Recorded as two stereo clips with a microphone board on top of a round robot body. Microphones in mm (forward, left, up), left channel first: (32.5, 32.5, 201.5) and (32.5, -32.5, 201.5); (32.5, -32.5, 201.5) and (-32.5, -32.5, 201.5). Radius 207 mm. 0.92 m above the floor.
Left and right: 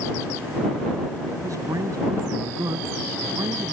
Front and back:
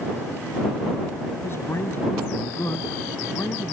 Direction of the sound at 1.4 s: 55° right.